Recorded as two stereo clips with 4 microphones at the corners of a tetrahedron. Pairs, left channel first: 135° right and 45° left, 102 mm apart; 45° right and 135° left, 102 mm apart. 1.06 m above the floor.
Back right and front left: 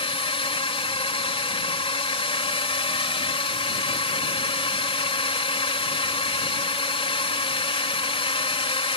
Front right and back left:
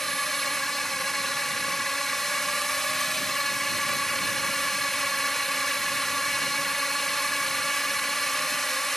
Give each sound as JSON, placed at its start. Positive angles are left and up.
{"t": 0.0, "sound": "a drone", "azimuth_deg": -135}